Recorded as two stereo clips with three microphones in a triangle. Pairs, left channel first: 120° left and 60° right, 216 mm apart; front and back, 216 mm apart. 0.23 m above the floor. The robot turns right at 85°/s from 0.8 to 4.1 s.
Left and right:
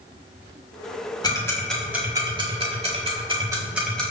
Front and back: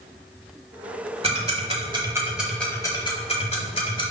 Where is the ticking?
165° left, 1.3 m; by 4.1 s 45° left, 1.3 m.